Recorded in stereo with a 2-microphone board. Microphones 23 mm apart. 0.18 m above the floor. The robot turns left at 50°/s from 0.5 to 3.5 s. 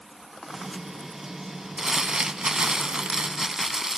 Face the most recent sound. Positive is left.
turn(degrees=-125)